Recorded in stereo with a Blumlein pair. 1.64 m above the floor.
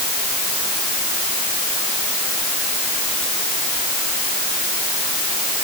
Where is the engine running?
I don't hear an engine running.